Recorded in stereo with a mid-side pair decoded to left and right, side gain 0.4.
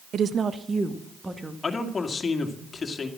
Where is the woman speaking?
65° right, 0.8 m; by 1.5 s 15° right, 2.0 m.